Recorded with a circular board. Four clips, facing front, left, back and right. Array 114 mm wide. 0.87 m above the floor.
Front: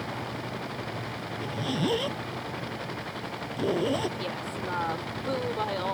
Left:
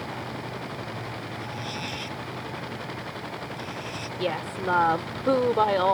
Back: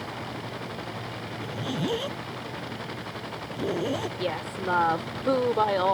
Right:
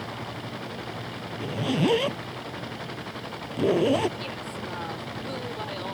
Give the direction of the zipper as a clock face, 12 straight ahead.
3 o'clock.